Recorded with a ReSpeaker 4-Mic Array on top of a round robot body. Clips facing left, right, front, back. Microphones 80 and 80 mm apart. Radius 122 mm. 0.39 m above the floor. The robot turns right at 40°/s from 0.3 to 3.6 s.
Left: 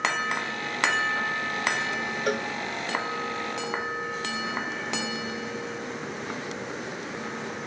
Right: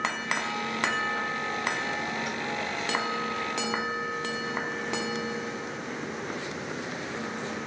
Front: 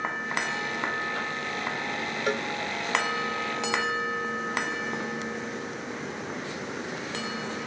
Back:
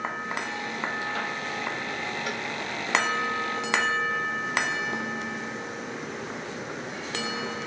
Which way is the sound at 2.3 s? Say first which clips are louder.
Left 6 dB, front 4 dB; 55° left.